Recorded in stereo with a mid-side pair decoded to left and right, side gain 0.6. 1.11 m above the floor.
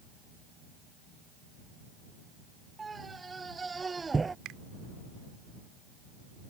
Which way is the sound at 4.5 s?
65° right.